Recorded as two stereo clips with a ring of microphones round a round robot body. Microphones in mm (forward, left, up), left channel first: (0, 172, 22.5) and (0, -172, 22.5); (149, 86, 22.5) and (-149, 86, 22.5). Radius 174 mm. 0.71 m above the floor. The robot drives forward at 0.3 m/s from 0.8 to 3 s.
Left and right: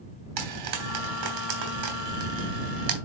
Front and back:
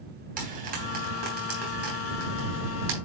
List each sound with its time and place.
0.4 s frying: 115° right, 3 m; by 2.9 s 125° right, 3.5 m